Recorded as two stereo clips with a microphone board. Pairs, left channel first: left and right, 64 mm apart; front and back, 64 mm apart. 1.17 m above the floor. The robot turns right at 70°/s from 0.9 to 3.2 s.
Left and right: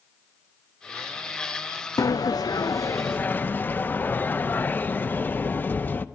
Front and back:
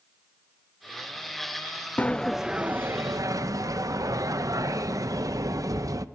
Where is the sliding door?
65° left, 0.6 m; by 6.0 s 150° left, 0.6 m.